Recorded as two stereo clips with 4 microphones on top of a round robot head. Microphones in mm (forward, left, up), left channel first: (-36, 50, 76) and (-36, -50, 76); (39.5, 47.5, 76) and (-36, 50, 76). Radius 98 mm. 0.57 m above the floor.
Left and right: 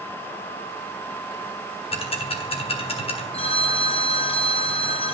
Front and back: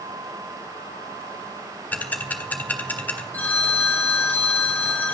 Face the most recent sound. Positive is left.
turn(degrees=65)